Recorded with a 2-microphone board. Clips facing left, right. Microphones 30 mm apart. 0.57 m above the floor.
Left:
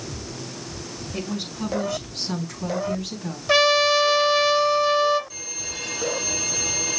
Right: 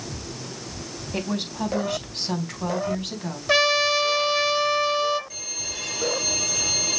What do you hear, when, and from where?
1.1 s a woman speaking: 55° right (ahead or behind), 4 m; by 3.4 s 35° right (ahead or behind), 4.5 m
3.5 s a trumpet: centre (ahead or behind), 1.3 m
5.3 s a violin: 10° right (ahead or behind), 4 m